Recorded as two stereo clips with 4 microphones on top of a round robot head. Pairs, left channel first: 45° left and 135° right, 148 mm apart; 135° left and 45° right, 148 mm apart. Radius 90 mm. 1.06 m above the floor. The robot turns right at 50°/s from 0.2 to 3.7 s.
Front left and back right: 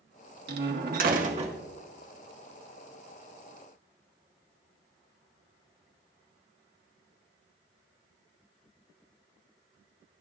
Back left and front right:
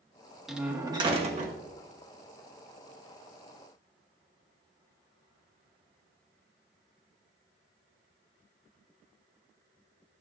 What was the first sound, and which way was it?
A door slam, 135° right.